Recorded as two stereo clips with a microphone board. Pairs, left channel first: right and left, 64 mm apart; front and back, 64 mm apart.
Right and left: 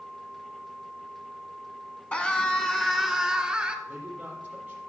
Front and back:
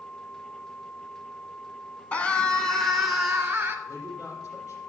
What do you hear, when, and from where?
2.1 s a scream: 40° right, 1.1 m; by 3.8 s 150° left, 1.1 m
3.9 s a man speaking: 20° left, 5.5 m